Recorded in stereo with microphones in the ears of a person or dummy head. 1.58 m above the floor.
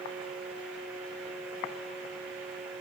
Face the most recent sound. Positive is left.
No sound to turn to.